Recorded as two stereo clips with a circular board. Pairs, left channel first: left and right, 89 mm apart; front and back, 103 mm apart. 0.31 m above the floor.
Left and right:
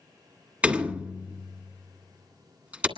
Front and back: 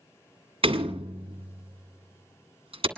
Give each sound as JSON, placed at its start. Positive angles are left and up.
{"t": 0.6, "sound": "a door slam", "azimuth_deg": -165, "distance_m": 1.7}